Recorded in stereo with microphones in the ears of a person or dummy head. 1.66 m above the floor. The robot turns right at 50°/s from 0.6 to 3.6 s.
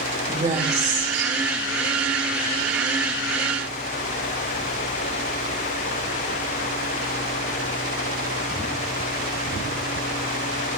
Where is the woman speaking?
150° right, 3.5 m; by 1.3 s 115° right, 3.5 m.